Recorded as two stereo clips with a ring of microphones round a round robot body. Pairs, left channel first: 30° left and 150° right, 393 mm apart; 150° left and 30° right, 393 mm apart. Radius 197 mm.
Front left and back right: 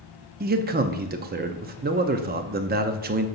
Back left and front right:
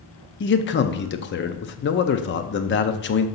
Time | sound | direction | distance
0.4 | a man speaking | 170° left | 0.6 m